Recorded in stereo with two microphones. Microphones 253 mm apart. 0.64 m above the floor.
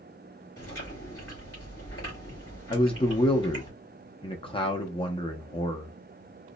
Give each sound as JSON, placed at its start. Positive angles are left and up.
{"t": 0.6, "sound": "chewing", "side_deg": 65, "distance_m": 2.5}
{"t": 2.7, "sound": "a man speaking", "side_deg": 20, "distance_m": 0.5}